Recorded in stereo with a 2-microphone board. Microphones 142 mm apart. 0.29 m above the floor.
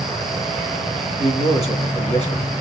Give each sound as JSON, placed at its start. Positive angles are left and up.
{"t": 1.2, "sound": "a man speaking", "side_deg": 50, "distance_m": 2.5}